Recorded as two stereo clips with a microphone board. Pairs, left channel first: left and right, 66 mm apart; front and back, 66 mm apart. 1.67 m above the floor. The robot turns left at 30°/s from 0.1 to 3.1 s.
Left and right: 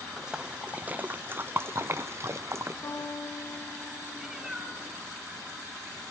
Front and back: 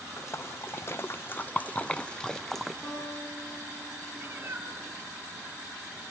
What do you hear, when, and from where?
0.2 s a splash: 10° right, 0.5 m; by 2.7 s 90° right, 0.5 m
2.8 s a guitar: 75° left, 3 m; by 4.9 s 65° left, 3 m
4.1 s a cat meowing: 165° right, 1.4 m